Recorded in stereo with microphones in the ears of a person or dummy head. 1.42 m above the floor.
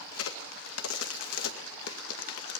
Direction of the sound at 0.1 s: 85° left.